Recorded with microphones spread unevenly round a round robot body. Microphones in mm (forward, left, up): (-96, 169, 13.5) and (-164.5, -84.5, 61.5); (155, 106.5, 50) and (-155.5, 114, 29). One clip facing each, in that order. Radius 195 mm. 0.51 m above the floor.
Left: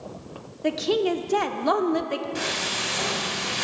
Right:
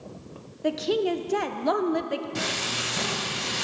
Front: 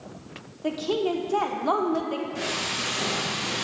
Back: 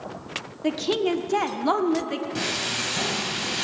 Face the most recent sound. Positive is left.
turn(degrees=-145)